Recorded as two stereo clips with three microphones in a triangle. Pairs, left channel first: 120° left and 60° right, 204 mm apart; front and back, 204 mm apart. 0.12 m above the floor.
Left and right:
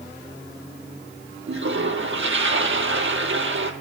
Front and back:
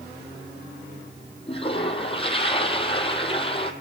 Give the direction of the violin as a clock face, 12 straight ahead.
I don't hear a violin.